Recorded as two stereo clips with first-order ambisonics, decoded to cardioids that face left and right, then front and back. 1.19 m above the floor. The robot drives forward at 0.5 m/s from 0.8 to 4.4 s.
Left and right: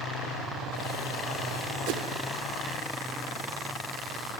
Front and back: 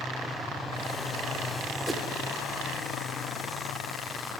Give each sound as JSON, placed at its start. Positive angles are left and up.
{"t": 1.9, "sound": "a whoosh", "azimuth_deg": -95, "distance_m": 0.6}